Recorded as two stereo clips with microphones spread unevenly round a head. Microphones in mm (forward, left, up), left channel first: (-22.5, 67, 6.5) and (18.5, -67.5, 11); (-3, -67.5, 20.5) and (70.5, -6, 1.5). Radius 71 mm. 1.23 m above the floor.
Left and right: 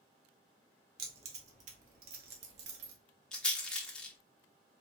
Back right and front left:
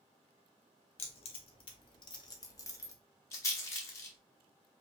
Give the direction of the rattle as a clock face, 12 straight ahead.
6 o'clock.